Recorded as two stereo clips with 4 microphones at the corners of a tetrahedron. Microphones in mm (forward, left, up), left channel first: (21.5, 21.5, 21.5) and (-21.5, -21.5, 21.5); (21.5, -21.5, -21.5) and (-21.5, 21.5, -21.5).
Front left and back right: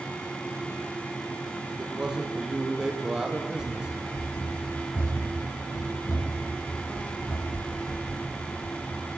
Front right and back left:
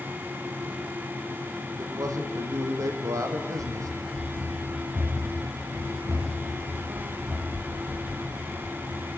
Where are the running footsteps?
100° left, 3.5 m; by 9.1 s 50° left, 3 m.